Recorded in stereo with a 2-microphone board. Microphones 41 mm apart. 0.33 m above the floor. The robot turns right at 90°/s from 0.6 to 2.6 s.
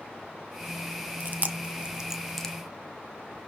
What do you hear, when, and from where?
1.2 s chewing: 45° right (ahead or behind), 0.9 m; by 2.5 s 15° left (ahead or behind), 0.9 m